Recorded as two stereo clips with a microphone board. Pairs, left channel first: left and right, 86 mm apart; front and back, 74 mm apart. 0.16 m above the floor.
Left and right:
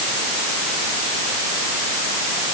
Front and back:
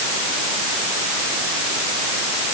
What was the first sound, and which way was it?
Only background noise.